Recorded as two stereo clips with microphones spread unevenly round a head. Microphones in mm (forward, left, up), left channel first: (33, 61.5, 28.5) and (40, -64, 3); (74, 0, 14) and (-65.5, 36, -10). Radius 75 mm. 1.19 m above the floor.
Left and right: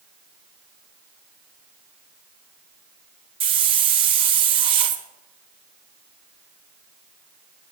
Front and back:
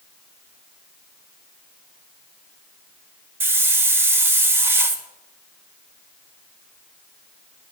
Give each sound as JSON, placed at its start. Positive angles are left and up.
{"t": 3.4, "sound": "a hiss", "azimuth_deg": -120, "distance_m": 0.9}